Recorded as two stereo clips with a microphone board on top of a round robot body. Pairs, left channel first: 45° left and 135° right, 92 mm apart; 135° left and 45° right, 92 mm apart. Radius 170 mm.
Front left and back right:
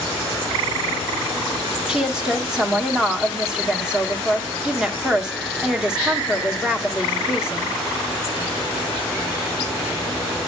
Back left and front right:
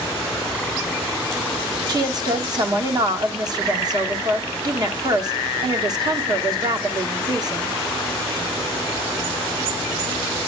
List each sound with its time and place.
1.9 s a woman speaking: 55° right, 1.4 m